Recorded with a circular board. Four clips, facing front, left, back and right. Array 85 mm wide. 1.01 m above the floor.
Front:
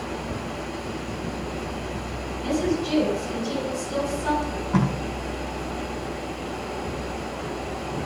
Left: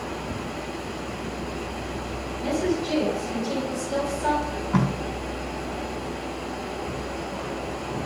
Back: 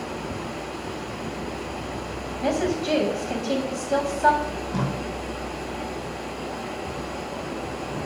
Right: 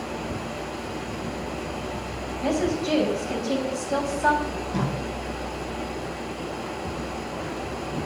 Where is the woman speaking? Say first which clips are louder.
Right 1 dB, back 1 dB; 160° right, 6.5 m.